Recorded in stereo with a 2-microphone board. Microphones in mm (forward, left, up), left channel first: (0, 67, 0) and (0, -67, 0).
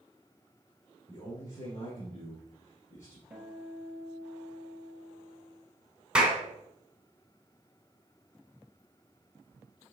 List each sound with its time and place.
1.1 s a man speaking: 70° left (ahead or behind), 2.5 m
3.3 s a guitar: 10° right (ahead or behind), 1.7 m
6.2 s a clap: 5° right (ahead or behind), 1.6 m